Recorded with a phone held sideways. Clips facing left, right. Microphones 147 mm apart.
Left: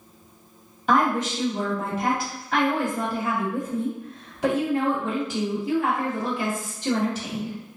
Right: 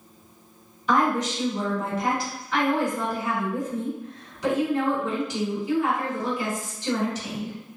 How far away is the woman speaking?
About 1.7 m.